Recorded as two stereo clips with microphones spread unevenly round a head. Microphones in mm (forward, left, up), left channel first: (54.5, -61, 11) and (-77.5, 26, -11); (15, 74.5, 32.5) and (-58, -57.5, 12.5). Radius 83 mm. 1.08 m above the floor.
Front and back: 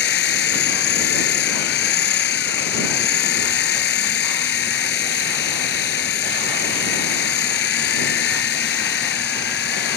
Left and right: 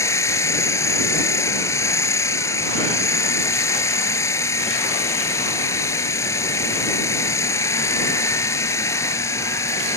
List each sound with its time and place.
0.0 s a machine running: 10° right